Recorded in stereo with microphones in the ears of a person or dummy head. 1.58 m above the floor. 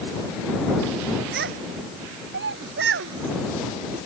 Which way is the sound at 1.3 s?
60° right (ahead or behind).